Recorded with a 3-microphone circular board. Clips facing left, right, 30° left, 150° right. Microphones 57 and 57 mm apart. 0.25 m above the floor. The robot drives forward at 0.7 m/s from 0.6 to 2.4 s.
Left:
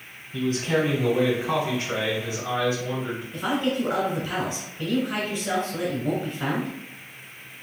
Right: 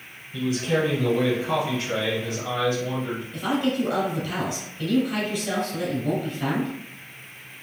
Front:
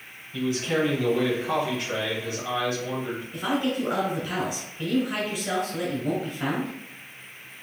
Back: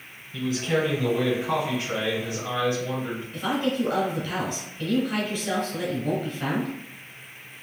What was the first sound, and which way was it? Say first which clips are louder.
A man speaking: even, even; 125° left.